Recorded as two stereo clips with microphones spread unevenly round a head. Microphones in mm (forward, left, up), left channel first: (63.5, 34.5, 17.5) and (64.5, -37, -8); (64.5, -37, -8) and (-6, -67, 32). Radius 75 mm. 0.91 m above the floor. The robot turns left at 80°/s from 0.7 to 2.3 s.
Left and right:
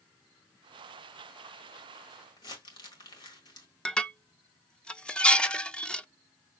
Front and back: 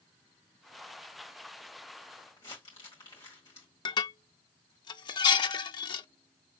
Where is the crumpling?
90° left, 1.6 m.